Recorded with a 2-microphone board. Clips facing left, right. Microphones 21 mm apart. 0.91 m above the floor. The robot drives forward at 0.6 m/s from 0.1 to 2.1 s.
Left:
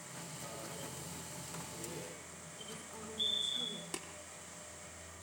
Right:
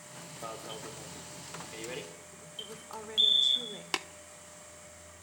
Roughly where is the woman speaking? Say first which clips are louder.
Right 7 dB; right.